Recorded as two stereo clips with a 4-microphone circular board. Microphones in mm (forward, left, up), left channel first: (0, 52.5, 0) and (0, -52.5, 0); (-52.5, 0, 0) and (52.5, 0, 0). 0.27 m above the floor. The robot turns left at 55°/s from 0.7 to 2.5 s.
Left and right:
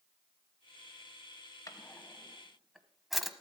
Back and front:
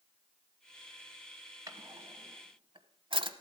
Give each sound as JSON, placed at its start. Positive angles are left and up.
{"t": 1.7, "sound": "a drawer", "azimuth_deg": 45, "distance_m": 0.9}